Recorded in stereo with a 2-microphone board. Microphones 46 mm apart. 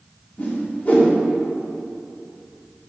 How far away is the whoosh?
About 2 m.